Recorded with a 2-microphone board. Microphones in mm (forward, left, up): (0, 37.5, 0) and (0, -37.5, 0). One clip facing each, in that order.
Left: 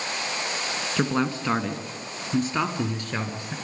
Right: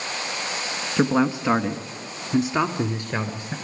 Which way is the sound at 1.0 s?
10° right (ahead or behind).